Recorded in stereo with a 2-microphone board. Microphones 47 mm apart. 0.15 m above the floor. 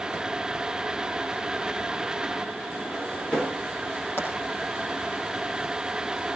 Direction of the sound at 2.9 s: 25° left (ahead or behind).